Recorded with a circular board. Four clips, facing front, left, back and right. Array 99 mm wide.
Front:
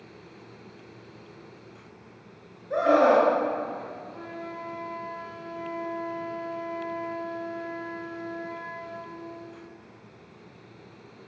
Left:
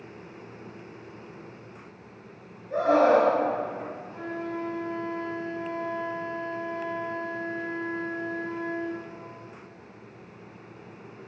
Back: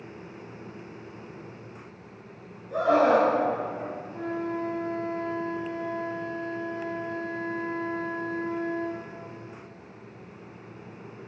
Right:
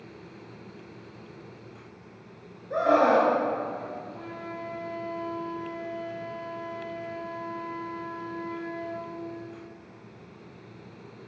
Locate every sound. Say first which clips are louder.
2.7 s a scream: left 1 dB, front 1 dB; 25° right, 2.5 m
4.1 s a flute: left 5 dB, back 7 dB; 90° left, 2.5 m